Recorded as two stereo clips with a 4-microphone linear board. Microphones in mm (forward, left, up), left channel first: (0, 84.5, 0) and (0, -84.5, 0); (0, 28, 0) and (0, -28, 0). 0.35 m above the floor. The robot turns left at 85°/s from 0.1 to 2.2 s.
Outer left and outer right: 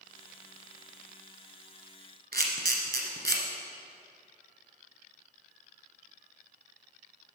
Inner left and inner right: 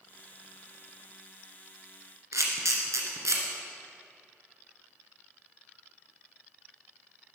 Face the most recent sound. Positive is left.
turn(degrees=-85)